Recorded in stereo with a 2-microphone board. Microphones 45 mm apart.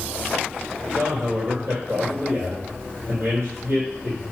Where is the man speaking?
65° right (ahead or behind), 3.5 m.